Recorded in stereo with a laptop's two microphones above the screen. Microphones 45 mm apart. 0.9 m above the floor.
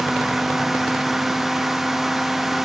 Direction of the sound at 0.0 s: 5° right (ahead or behind).